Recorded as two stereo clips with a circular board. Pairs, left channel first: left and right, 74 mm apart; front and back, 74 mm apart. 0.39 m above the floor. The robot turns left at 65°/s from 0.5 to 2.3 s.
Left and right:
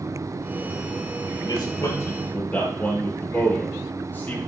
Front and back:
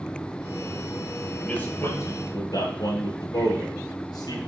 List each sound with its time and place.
1.4 s a man speaking: 80° left, 7 m; by 4.4 s 25° left, 7 m